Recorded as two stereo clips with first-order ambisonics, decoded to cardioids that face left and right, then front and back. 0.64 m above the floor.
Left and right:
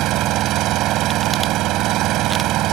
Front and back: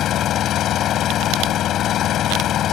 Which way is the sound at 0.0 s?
50° right.